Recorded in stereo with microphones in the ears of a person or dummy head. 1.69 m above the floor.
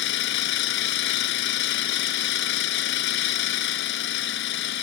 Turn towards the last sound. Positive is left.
turn(degrees=70)  # may be behind; listen again after turning